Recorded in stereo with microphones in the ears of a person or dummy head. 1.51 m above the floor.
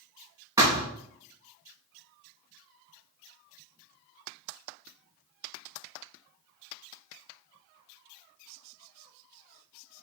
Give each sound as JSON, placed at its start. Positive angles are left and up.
{"t": 0.6, "sound": "a thud", "side_deg": -15, "distance_m": 3.0}